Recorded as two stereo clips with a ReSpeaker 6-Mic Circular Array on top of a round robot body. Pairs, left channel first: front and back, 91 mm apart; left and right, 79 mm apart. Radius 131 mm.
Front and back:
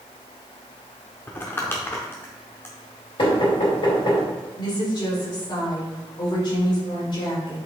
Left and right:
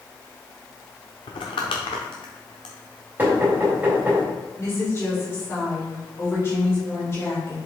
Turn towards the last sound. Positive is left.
turn(degrees=35)